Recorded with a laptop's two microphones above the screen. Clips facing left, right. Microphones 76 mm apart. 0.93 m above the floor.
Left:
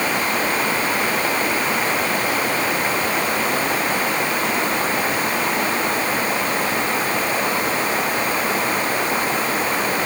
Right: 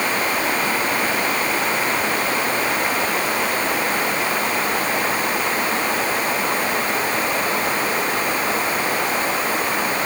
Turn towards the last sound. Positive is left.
No sound to turn to.